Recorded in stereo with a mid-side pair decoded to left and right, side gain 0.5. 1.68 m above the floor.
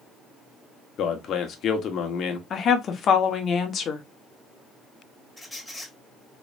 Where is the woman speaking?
50° left, 1.2 m.